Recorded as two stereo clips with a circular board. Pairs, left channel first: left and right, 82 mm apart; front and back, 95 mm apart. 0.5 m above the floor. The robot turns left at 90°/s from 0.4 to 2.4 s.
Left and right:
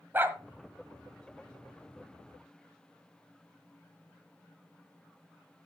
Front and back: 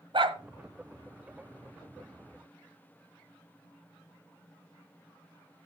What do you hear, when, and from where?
0.1 s a dog barking: 155° right, 1.2 m